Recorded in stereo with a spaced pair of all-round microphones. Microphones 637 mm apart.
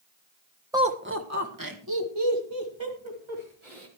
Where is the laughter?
5° right (ahead or behind), 1.3 m; by 3.9 s 50° right (ahead or behind), 4.5 m.